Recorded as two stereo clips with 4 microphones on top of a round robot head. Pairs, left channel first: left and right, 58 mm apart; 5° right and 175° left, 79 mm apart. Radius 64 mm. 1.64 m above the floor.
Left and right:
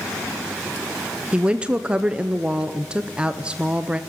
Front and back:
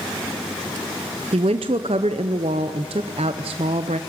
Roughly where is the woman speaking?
Behind.